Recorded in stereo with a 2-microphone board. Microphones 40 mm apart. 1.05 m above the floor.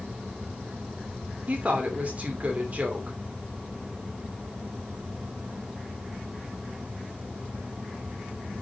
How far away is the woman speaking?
About 2.5 m.